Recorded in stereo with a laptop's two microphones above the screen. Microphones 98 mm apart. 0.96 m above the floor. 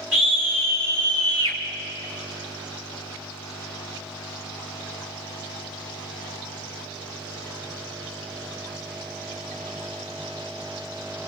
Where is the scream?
15° right (ahead or behind), 1.9 m; by 1.6 s 55° right (ahead or behind), 1.4 m.